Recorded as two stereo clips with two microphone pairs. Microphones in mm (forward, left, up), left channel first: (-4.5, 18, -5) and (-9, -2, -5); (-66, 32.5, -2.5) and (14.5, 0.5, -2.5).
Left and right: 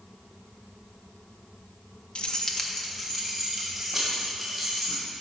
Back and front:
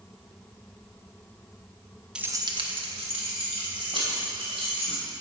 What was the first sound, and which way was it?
Keys jangling, 65° left.